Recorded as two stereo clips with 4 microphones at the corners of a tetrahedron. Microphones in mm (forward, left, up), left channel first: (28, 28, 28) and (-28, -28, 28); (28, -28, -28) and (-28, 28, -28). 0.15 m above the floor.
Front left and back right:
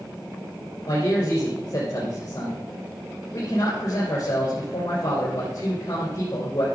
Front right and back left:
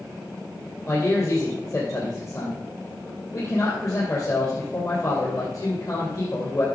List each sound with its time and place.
0.9 s a man speaking: straight ahead, 3 m